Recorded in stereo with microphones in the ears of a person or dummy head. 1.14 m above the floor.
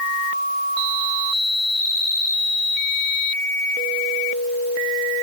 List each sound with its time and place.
Only background noise.